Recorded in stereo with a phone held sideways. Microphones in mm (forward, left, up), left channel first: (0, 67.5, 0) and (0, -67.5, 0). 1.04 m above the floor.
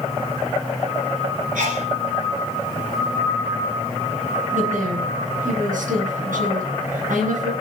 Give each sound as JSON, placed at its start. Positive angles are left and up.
{"t": 1.6, "sound": "a sneeze", "side_deg": -80, "distance_m": 4.0}
{"t": 4.5, "sound": "a woman speaking", "side_deg": -80, "distance_m": 8.5}